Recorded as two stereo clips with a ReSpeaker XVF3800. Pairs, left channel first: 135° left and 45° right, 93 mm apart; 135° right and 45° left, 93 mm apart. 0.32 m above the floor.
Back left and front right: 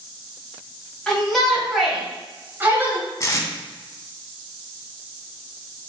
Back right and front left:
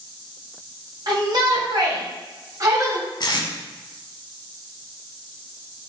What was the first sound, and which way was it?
A shout, 55° left.